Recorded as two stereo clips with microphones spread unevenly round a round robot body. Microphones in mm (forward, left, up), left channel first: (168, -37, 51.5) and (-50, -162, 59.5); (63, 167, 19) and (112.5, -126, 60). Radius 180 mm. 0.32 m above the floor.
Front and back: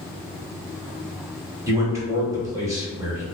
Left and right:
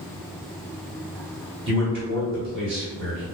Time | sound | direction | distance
1.7 | a man speaking | 80° right | 1.3 m